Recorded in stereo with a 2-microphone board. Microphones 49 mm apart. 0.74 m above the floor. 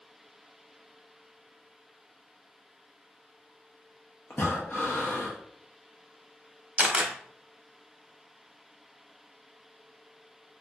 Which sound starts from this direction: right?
A camera shutter, at 6.8 s.